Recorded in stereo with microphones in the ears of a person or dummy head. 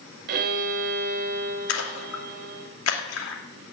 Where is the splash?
80° left, 2.5 m.